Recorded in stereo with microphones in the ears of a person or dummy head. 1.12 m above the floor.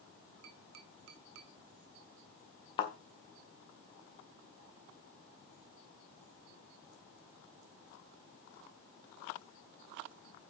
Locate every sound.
0.4 s tapping: 65° right (ahead or behind), 1.5 m
2.8 s a thud: 25° left (ahead or behind), 1.8 m